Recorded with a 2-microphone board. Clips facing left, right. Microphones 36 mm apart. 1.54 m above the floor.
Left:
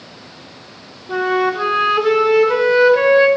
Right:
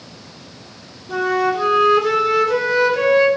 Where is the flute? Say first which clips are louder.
Left 1 dB; 20° left (ahead or behind), 1.2 m.